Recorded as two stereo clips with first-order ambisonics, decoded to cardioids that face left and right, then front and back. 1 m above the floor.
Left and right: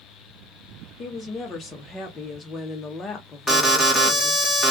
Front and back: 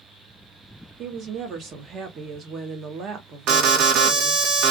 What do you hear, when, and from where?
1.0 s a woman speaking: 145° left, 0.9 m
3.5 s an alarm: 175° left, 0.9 m